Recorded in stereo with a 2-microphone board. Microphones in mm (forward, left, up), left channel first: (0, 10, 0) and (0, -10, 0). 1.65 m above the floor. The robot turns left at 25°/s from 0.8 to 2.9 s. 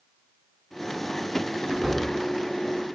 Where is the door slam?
Centre (ahead or behind), 8 m; by 2.1 s 10° right (ahead or behind), 8 m.